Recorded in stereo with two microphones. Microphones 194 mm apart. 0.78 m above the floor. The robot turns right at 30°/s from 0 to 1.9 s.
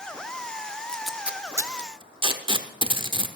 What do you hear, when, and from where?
0.9 s tape being pulled: 5° left (ahead or behind), 1.0 m; by 3.3 s 25° right (ahead or behind), 1.0 m